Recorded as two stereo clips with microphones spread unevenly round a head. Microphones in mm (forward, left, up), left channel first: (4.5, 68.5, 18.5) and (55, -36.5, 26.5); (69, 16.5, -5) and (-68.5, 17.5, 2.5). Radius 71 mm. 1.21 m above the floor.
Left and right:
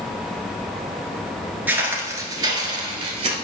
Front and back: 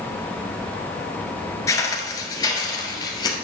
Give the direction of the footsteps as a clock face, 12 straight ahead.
1 o'clock.